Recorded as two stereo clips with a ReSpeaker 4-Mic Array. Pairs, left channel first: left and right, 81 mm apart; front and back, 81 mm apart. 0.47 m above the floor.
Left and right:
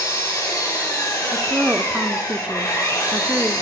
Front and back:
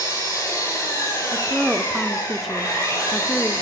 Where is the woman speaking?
105° right, 0.7 m.